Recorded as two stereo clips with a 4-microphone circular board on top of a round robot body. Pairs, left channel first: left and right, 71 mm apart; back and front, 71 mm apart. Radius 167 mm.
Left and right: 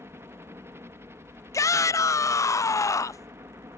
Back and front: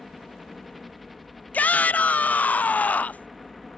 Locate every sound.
0.0 s a helicopter: 90° right
1.5 s a shout: 115° left